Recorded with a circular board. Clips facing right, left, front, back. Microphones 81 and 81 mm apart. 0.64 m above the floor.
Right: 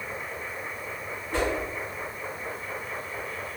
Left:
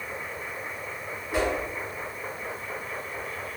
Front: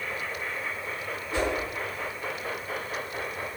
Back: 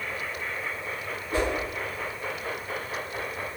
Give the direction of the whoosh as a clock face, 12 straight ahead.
6 o'clock.